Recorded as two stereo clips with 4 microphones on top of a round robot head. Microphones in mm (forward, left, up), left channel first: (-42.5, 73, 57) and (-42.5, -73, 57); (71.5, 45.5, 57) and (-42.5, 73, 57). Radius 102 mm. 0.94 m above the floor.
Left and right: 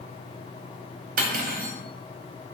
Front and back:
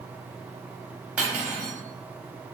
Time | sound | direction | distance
1.2 | cutlery clinking | 110° right | 0.6 m